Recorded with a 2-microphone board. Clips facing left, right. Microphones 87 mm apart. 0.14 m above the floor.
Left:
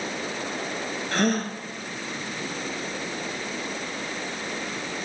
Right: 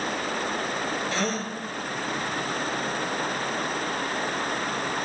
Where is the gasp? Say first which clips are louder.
Left 4 dB; 55° left (ahead or behind), 2.0 m.